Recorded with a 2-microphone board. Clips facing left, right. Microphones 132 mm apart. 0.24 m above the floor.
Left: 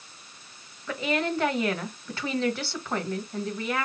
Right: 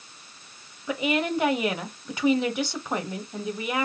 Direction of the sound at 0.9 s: 15° right (ahead or behind).